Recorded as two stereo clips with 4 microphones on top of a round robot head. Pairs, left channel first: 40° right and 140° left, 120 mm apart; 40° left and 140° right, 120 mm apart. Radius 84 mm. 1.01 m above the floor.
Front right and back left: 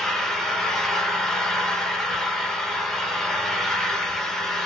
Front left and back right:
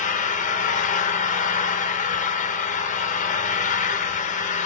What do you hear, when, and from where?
0.0 s an engine running: 45° left, 0.7 m